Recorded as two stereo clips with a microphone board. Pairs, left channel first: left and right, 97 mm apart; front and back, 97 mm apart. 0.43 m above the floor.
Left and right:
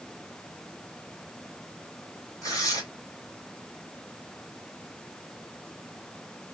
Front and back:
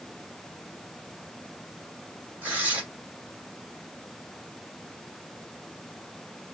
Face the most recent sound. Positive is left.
turn(degrees=120)